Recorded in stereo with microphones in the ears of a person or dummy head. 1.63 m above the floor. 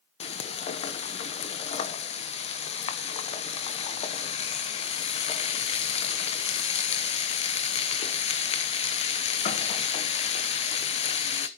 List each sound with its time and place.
0.2 s frying: 40° left (ahead or behind), 1.0 m